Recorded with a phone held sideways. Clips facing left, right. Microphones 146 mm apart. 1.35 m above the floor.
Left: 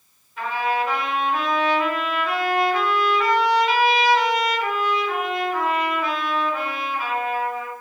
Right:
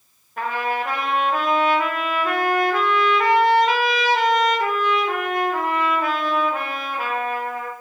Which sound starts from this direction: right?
A trumpet, at 0.4 s.